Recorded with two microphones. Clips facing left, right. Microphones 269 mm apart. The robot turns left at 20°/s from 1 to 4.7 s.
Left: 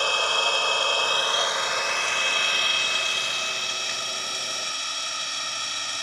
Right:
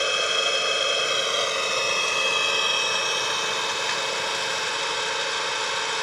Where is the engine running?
20° right; by 6.0 s 95° right.